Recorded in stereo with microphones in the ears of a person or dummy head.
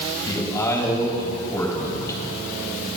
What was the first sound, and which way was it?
A man speaking, 15° left (ahead or behind).